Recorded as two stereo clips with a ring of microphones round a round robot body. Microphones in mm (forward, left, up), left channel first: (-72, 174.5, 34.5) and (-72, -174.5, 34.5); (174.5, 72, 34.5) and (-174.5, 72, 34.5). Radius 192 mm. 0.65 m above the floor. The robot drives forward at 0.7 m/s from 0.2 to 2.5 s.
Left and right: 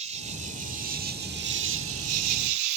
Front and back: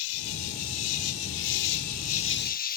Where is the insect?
15° right; by 2.8 s 60° right.